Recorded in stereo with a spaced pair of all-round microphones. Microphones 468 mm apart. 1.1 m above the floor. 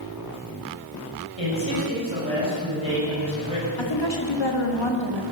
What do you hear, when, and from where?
1.4 s a man speaking: 75° left (ahead or behind), 6 m
3.8 s a woman speaking: 70° left (ahead or behind), 1.9 m